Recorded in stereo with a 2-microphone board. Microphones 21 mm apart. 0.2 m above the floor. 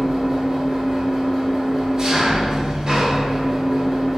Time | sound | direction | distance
0.0 | an engine running | 25° right (ahead or behind) | 0.8 m